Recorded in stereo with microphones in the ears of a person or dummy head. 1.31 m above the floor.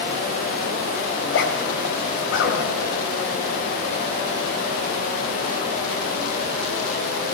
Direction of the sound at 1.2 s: 60° left (ahead or behind).